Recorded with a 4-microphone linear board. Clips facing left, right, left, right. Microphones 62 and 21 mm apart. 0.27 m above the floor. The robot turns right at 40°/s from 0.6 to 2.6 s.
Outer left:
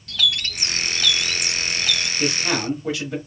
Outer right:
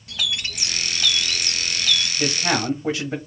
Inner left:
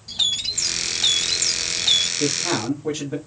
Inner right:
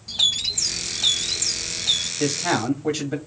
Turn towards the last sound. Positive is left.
turn(degrees=-25)  # may be behind; listen again after turning